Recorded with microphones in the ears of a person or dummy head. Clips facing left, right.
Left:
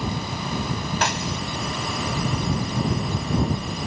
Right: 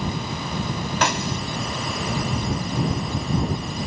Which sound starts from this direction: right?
A snare drum, at 1.0 s.